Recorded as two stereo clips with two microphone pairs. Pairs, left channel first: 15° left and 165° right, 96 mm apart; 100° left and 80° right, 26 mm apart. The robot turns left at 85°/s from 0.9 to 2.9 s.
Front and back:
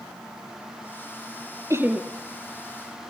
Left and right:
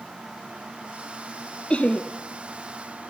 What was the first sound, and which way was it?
Laughter, 145° left.